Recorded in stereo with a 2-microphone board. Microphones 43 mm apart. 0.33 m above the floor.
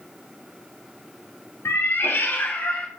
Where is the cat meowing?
60° left (ahead or behind), 0.6 m; by 2.9 s 30° left (ahead or behind), 0.9 m.